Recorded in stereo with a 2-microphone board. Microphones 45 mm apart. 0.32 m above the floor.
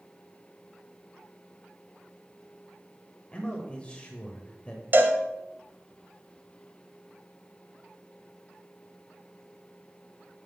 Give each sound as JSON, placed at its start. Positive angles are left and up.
{"t": 3.3, "sound": "a man speaking", "side_deg": 25, "distance_m": 0.9}
{"t": 4.9, "sound": "a cowbell", "side_deg": -50, "distance_m": 0.7}